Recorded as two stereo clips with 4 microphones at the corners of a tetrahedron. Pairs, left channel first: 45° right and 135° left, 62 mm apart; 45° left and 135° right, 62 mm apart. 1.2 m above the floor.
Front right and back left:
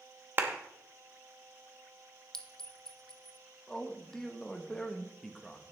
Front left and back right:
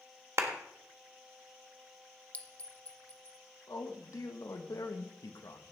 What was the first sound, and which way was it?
A clap, 170° right.